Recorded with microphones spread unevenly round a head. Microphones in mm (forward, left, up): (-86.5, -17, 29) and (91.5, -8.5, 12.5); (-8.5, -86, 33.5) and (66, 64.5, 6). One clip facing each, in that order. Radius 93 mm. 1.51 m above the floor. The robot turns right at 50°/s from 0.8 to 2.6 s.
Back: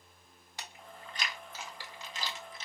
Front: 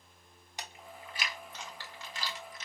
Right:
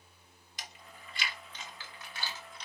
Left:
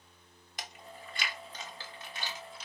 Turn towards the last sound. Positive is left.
turn(degrees=160)